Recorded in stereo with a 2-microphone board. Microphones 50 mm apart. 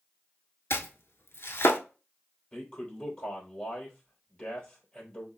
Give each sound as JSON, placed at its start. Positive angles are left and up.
{"t": 0.7, "sound": "chopping", "side_deg": 60, "distance_m": 0.7}
{"t": 2.5, "sound": "a man speaking", "side_deg": 25, "distance_m": 3.0}